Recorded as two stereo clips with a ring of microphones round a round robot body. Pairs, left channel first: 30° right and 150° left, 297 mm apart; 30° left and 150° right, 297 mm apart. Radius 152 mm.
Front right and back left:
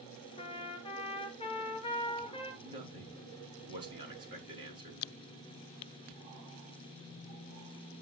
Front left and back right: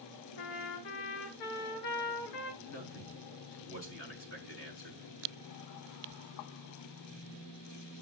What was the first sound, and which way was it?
A trumpet, 40° left.